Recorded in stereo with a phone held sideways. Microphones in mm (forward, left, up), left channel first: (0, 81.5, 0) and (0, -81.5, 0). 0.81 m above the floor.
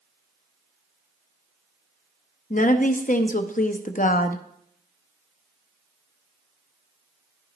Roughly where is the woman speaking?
Left.